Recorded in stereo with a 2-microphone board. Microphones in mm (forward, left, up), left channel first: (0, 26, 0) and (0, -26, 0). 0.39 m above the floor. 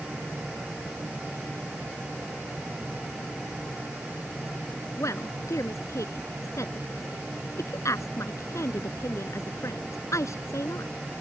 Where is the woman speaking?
80° left.